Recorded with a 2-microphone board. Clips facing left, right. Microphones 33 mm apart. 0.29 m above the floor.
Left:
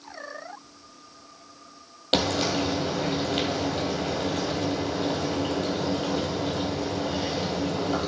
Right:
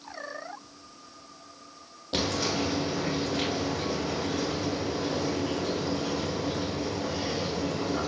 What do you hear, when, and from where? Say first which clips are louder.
2.1 s frying: left 4 dB; 80° left, 3 m